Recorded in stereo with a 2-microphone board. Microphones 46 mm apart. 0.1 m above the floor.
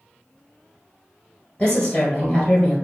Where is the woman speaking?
20° left (ahead or behind), 1.6 m.